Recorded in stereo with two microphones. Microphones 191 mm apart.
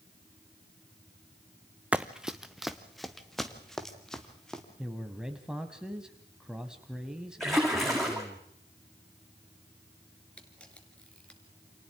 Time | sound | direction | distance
1.9 | running footsteps | 5° right (ahead or behind) | 0.7 m
4.8 | a man speaking | 5° right (ahead or behind) | 1.1 m
7.4 | a splash | centre (ahead or behind) | 5.5 m
10.4 | a camera shutter | 5° left (ahead or behind) | 2 m